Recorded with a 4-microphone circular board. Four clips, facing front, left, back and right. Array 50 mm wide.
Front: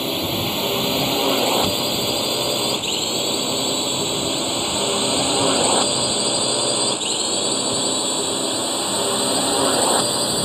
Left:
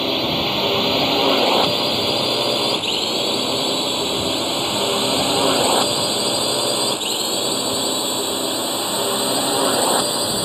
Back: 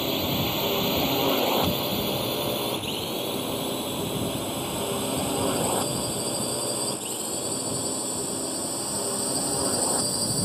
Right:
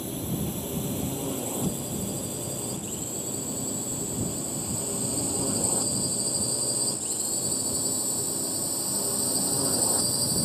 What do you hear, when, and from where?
0.0 s a drone: 80° left; by 10.5 s 50° left